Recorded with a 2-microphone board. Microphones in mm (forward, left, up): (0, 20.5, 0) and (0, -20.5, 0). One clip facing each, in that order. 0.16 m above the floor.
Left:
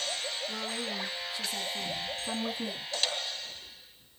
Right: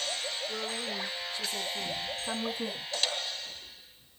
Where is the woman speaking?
15° left (ahead or behind), 1.7 m; by 2.9 s 10° right (ahead or behind), 1.6 m.